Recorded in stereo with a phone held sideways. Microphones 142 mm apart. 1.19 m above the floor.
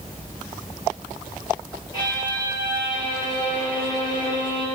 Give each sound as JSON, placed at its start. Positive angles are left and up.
{"t": 1.9, "sound": "a violin", "side_deg": 30, "distance_m": 8.0}